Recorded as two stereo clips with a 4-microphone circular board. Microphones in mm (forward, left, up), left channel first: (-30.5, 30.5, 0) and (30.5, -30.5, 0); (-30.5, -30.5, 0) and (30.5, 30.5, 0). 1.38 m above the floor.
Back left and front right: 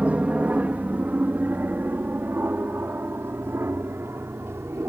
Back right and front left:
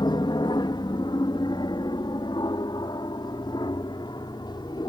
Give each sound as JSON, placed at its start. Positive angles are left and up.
{"t": 0.0, "sound": "an aircraft", "azimuth_deg": -120}